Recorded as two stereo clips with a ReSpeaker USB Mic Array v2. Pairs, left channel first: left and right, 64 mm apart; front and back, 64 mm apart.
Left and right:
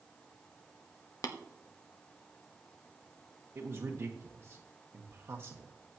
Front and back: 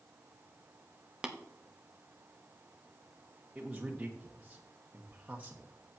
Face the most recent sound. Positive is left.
turn(degrees=-115)